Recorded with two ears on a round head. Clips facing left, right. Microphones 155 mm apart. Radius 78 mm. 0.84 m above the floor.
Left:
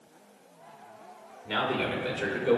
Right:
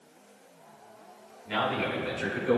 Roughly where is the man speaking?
Left.